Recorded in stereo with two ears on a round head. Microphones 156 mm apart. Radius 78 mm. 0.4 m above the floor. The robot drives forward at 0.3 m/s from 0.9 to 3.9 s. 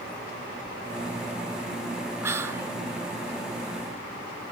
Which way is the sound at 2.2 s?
15° right (ahead or behind).